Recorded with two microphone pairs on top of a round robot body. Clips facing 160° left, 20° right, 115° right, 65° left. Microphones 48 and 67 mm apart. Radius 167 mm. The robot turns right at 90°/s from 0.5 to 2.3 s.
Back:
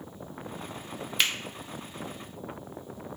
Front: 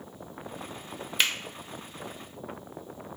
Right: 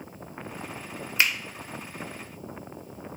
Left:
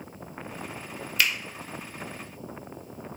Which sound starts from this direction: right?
A finger snap, at 1.2 s.